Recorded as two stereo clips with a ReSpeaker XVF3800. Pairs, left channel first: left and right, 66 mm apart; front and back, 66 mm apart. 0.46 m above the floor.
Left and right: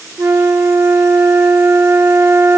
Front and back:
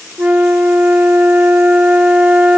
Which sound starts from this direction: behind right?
A flute, at 0.2 s.